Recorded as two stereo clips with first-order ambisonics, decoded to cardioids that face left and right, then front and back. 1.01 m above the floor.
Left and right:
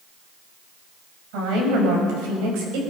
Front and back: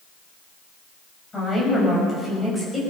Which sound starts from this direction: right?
A woman speaking, at 1.3 s.